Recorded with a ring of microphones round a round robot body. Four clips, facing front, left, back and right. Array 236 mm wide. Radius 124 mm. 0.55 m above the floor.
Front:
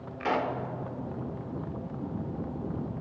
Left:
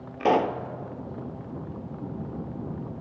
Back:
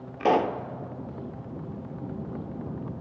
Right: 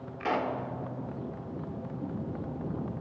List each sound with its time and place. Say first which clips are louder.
0.2 s a pop: left 8 dB, back 6 dB; 135° left, 0.8 m